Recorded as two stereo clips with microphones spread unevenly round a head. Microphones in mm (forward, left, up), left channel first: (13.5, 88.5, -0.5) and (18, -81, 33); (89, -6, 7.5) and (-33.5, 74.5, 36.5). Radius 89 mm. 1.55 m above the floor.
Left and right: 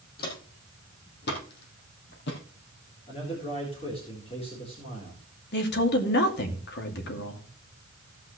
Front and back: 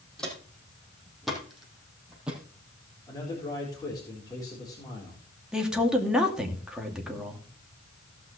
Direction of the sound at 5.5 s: 65° left.